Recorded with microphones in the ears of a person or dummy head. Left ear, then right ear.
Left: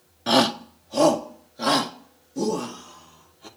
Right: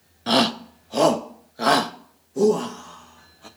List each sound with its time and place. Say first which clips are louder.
0.3 s a shout: even; centre (ahead or behind), 0.6 m; by 3.5 s 40° right (ahead or behind), 2.5 m